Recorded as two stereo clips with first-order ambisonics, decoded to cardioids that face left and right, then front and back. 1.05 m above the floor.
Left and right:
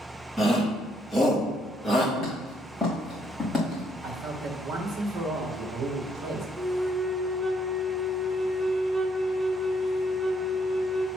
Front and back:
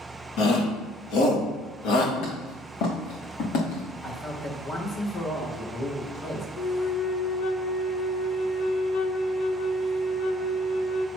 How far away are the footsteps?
About 3.5 m.